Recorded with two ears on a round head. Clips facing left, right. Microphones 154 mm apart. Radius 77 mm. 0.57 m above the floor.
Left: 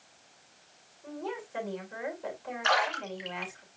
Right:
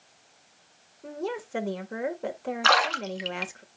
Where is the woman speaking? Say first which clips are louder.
Right 5 dB; 55° right (ahead or behind), 2.5 m.